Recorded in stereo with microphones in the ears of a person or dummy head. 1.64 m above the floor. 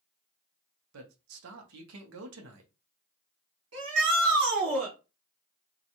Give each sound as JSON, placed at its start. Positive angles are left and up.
{"t": 0.9, "sound": "a man speaking", "side_deg": -75, "distance_m": 0.8}
{"t": 3.7, "sound": "a shout", "side_deg": -65, "distance_m": 1.7}